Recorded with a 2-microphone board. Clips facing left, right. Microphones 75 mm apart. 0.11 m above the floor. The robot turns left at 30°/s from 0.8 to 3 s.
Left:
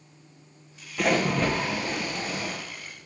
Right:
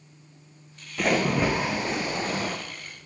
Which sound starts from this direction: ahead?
A splash, at 1.0 s.